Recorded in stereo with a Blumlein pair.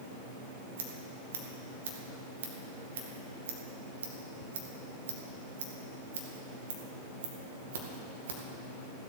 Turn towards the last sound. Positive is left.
turn(degrees=-60)